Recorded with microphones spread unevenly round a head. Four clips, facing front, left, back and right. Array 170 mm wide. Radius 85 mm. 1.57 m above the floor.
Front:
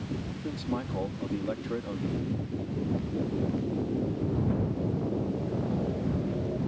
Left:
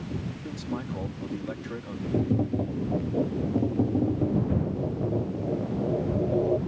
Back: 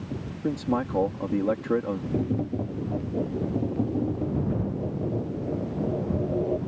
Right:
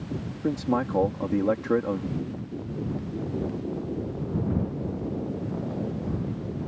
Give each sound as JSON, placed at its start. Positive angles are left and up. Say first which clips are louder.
{"t": 0.4, "sound": "a man speaking", "louder": "right 12 dB, back 8 dB", "azimuth_deg": -125}
{"t": 2.1, "sound": "tapping", "louder": "left 7 dB, back 6 dB", "azimuth_deg": 120}